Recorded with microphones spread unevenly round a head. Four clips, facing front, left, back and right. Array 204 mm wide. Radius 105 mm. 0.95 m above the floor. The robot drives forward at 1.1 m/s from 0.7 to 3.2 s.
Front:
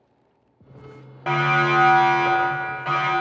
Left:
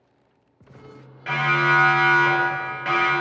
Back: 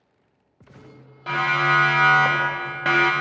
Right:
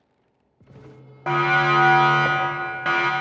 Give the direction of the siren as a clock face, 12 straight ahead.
2 o'clock.